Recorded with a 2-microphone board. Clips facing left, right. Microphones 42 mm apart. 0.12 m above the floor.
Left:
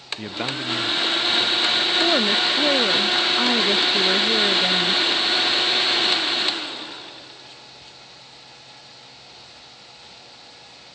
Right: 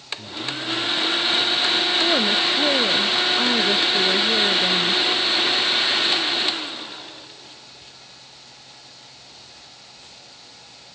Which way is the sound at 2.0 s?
5° left (ahead or behind).